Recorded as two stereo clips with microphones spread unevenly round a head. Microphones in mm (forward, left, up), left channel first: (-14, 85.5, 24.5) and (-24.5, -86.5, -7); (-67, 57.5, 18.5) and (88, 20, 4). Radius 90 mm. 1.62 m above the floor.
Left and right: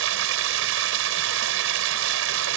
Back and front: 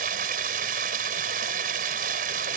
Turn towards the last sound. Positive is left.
turn(degrees=-65)